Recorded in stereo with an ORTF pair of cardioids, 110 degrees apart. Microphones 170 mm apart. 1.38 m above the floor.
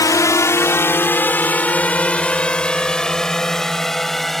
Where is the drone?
20° left; by 4.4 s straight ahead.